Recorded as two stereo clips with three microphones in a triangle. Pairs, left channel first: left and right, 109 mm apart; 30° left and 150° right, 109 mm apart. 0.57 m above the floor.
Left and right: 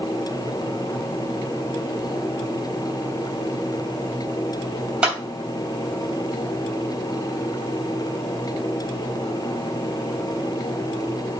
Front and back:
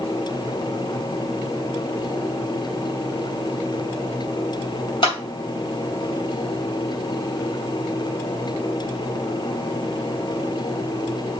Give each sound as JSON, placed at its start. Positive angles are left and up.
{"t": 5.0, "sound": "a clap", "azimuth_deg": -10, "distance_m": 3.0}